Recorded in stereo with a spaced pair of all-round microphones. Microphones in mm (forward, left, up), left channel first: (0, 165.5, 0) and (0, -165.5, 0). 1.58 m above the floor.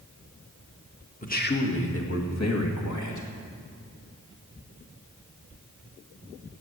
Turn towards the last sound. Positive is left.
turn(degrees=65)  # may be behind; listen again after turning